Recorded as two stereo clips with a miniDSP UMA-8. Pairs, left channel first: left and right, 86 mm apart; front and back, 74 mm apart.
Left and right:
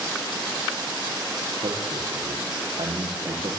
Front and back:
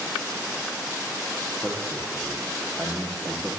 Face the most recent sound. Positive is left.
turn(degrees=-80)